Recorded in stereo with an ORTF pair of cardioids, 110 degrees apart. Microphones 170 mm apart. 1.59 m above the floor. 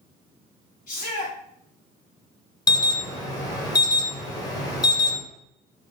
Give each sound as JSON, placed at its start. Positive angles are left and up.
{"t": 0.9, "sound": "a shout", "azimuth_deg": 55, "distance_m": 1.5}
{"t": 2.7, "sound": "an alarm", "azimuth_deg": 25, "distance_m": 1.0}